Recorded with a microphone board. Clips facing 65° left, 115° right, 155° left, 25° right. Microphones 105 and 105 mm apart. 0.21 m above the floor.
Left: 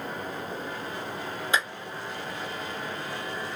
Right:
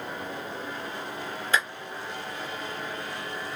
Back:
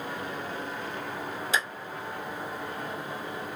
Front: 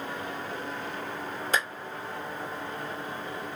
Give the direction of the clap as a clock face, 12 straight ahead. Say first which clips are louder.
Right 1 dB, front 1 dB; 12 o'clock.